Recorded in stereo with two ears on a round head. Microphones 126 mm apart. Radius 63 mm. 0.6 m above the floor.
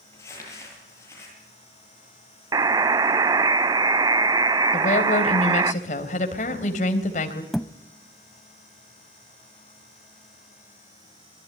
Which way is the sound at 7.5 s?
Centre (ahead or behind).